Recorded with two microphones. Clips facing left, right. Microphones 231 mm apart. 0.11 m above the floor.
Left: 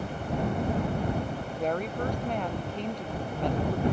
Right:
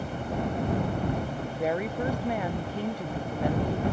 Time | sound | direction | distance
1.2 | a woman speaking | 10° right (ahead or behind) | ?